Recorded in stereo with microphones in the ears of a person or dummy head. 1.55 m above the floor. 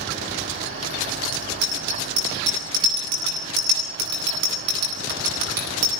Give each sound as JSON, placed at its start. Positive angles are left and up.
{"t": 1.3, "sound": "a bicycle bell", "side_deg": -60, "distance_m": 9.0}